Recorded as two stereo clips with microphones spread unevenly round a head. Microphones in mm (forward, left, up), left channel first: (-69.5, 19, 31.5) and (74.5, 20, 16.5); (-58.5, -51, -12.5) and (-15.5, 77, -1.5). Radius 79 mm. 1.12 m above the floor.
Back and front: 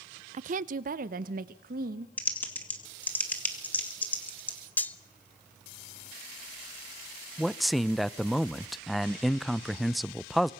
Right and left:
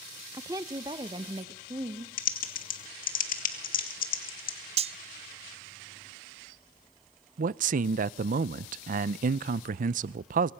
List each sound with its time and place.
0.3 s a woman speaking: 5° right, 0.5 m; by 2.1 s 10° left, 1.7 m
2.2 s typing on a keyboard: 100° right, 2.0 m
4.8 s cutlery clinking: 105° left, 0.7 m
7.4 s a man speaking: 90° left, 0.5 m